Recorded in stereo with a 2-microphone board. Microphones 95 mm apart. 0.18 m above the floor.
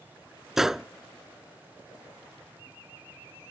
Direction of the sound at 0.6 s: 5° right (ahead or behind).